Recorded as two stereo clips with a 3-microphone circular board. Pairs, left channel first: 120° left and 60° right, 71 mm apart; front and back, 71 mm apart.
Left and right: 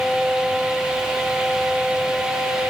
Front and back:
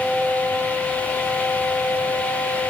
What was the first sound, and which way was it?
Only background noise.